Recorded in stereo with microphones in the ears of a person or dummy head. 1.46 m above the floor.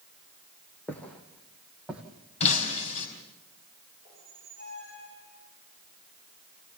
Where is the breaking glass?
40° left (ahead or behind), 4.5 m.